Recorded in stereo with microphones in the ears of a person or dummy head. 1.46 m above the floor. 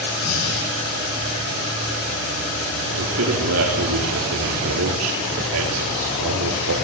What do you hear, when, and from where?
0.2 s breathing: 85° left, 8.5 m
3.0 s a man speaking: 85° right, 4.5 m